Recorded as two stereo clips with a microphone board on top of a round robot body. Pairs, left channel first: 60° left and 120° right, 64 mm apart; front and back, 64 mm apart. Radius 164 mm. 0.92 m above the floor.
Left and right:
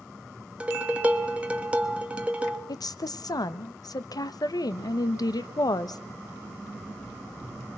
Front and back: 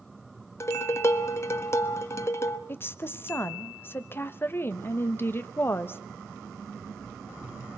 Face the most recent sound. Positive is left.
turn(degrees=55)